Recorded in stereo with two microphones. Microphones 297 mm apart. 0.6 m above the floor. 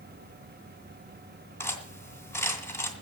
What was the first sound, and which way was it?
Cutlery clinking, 10° left (ahead or behind).